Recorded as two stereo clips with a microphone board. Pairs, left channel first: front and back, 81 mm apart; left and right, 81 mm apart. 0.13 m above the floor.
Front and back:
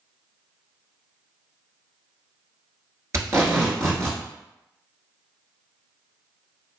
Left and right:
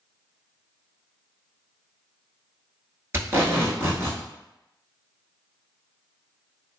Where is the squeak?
No squeak in this recording.